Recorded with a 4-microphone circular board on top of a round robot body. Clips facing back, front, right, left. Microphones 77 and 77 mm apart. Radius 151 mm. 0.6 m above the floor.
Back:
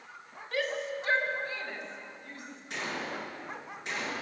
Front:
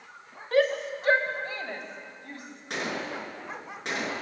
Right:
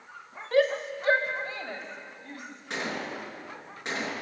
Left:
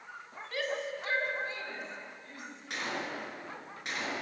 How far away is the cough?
I don't hear a cough.